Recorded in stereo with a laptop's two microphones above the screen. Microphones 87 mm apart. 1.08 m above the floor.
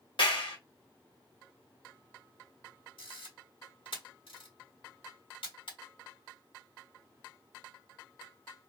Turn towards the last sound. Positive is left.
turn(degrees=85)